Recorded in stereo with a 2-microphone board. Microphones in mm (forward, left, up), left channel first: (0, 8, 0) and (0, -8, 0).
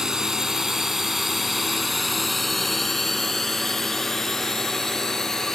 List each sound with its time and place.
0.0 s a drone: 40° right (ahead or behind); by 5.6 s 35° left (ahead or behind)